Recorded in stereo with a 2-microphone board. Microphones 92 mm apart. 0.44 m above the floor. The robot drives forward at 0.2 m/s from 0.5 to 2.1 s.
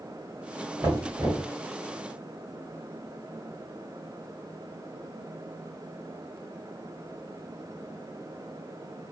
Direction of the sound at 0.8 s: 45° right (ahead or behind).